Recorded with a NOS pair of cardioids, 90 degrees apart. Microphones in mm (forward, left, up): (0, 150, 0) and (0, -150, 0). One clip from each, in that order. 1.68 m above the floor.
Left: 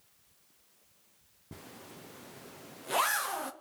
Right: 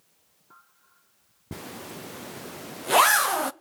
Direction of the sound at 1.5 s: 50° right.